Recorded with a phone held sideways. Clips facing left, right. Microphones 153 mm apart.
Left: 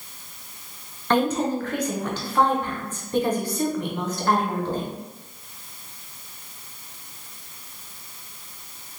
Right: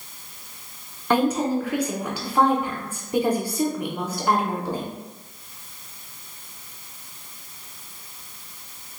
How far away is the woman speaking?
About 0.9 m.